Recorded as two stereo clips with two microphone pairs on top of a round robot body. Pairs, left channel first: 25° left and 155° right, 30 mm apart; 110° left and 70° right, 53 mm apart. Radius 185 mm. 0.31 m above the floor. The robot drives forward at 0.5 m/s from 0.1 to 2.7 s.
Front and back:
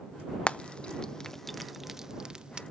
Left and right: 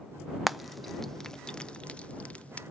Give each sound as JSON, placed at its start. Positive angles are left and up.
{"t": 0.5, "sound": "frying", "azimuth_deg": 5, "distance_m": 0.9}